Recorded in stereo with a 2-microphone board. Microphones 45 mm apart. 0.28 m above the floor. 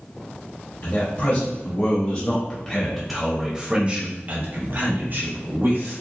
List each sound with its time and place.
0.8 s a man speaking: 50° left (ahead or behind), 1.7 m; by 6.0 s 55° right (ahead or behind), 1.9 m